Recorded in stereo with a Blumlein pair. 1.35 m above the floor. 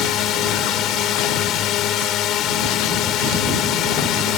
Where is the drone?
35° left.